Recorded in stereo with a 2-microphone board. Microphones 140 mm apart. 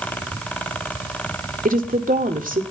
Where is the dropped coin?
I don't hear a dropped coin.